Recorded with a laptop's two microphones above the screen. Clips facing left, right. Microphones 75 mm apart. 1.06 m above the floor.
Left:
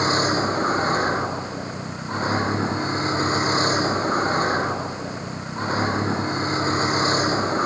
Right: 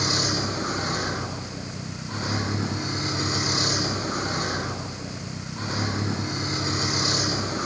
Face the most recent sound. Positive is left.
turn(degrees=40)  # may be behind; listen again after turning